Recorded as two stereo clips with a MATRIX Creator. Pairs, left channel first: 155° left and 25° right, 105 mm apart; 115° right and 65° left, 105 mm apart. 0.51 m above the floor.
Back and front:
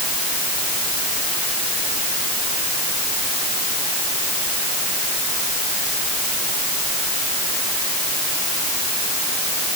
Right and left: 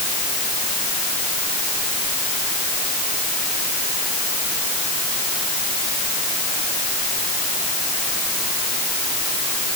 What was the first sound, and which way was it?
Only background noise.